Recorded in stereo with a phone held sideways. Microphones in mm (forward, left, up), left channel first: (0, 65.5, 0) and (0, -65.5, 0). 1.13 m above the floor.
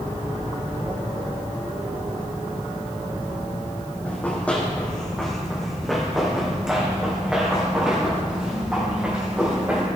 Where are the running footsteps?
15° left (ahead or behind), 2.5 m; by 9.9 s 15° right (ahead or behind), 5.5 m.